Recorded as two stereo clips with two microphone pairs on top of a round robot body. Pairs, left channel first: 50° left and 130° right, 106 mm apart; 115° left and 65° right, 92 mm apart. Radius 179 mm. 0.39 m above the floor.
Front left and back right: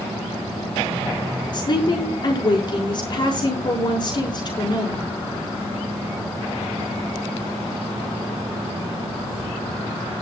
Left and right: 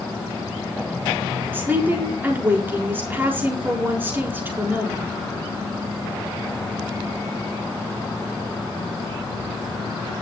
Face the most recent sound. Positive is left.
turn(degrees=0)